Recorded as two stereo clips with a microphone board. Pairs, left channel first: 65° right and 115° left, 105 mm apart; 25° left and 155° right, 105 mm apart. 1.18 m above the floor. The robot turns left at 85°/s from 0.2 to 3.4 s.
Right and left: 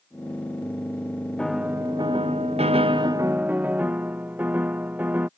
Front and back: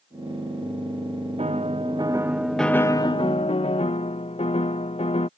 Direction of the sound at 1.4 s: 150° right.